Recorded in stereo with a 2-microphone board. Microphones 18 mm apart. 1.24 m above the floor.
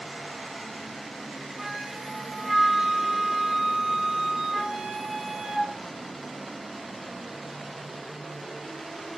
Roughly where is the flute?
Right.